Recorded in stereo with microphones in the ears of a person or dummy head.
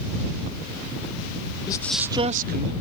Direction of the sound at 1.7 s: 25° left (ahead or behind).